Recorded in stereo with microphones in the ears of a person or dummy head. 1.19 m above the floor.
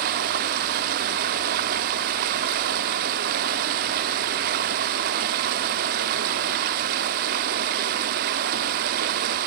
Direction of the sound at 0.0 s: 55° right (ahead or behind).